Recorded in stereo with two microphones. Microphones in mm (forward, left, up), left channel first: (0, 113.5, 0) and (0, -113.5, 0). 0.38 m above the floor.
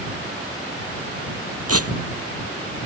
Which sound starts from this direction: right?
Tearing paper, at 1.7 s.